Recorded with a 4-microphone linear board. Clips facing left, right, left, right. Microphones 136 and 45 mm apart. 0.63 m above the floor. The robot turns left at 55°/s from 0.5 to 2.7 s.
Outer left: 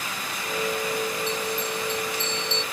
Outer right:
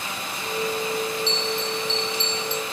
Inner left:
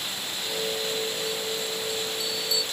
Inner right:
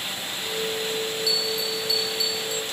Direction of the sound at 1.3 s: 65° right.